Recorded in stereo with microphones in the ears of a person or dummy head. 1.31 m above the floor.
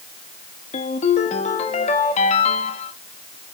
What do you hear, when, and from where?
0.7 s a ringtone: 35° left (ahead or behind), 1.8 m